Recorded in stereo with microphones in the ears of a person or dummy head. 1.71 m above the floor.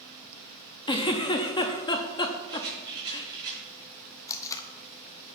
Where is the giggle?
25° left (ahead or behind), 0.6 m.